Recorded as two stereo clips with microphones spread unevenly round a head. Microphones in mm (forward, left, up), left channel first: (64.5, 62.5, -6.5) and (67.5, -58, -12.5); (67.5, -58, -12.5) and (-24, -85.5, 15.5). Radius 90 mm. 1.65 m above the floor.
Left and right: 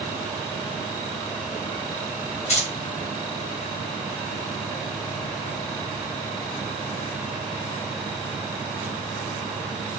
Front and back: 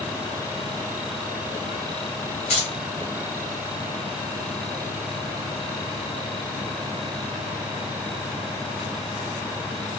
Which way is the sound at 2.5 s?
70° left.